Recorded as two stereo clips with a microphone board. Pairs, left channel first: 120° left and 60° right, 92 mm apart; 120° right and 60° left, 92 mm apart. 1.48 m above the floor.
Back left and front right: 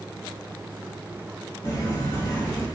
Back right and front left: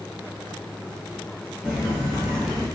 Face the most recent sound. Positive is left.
turn(degrees=80)